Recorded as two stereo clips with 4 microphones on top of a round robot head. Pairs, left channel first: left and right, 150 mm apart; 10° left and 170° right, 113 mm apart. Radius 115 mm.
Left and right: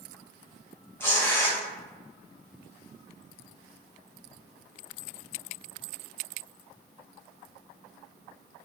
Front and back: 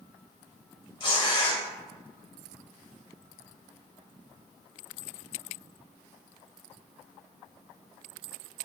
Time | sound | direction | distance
1.0 | tearing paper | 20° left | 0.9 m